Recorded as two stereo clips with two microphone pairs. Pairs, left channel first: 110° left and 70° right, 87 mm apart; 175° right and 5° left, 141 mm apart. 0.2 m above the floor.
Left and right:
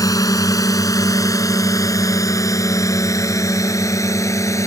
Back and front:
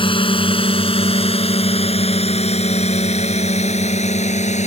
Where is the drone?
145° left; by 4.7 s 160° left.